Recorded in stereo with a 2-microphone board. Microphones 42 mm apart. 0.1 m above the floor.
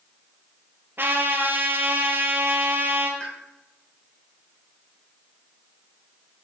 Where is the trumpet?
55° right (ahead or behind), 1.4 m.